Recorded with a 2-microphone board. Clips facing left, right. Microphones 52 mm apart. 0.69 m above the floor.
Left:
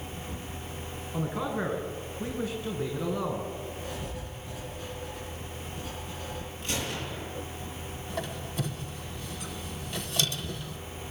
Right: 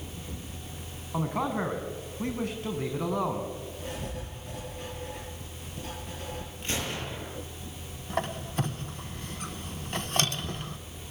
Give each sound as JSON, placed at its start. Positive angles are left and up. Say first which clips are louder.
{"t": 1.1, "sound": "a man speaking", "louder": "right 2 dB", "side_deg": -55, "distance_m": 5.0}
{"t": 3.8, "sound": "writing", "louder": "even", "side_deg": -65, "distance_m": 10.0}
{"t": 6.6, "sound": "a gunshot", "louder": "right 1 dB", "side_deg": -35, "distance_m": 8.0}
{"t": 8.1, "sound": "a squeak", "louder": "right 4 dB", "side_deg": -45, "distance_m": 1.4}